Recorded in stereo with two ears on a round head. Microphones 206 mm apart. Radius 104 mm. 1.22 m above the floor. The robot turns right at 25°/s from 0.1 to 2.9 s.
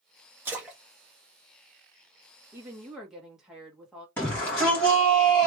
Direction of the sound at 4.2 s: 10° left (ahead or behind).